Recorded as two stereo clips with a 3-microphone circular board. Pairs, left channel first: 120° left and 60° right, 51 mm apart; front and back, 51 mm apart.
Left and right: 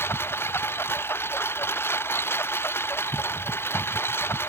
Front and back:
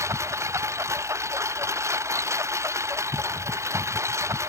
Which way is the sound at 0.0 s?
160° left.